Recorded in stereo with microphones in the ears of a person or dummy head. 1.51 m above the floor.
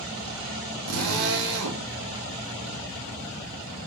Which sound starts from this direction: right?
A drill, at 0.9 s.